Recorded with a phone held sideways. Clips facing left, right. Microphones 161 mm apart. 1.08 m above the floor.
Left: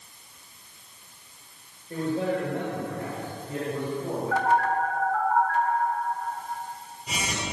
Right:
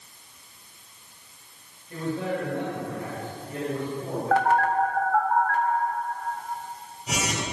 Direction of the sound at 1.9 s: 40° left (ahead or behind).